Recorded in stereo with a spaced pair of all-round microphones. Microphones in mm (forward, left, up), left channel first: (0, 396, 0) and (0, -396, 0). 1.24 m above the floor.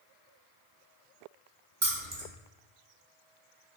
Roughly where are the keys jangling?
Right.